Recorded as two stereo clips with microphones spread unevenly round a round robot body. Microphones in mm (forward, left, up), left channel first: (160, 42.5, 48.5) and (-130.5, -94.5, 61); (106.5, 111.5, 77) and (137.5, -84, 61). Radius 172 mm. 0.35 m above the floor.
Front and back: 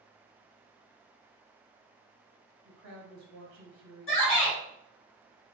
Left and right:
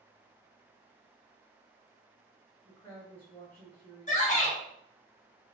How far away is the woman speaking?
About 1.6 m.